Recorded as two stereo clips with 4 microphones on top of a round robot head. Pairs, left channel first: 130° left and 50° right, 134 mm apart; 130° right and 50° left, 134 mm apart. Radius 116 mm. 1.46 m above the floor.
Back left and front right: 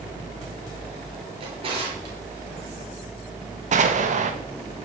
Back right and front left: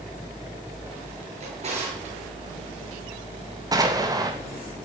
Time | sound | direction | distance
1.4 | a drawer | 5° left | 7 m
3.7 | an explosion | 15° right | 2.5 m